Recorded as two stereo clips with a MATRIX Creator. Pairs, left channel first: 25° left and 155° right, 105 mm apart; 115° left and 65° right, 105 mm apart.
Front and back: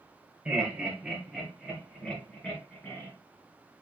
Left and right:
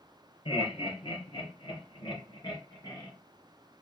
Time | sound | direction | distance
0.5 | laughter | 125° left | 2.5 m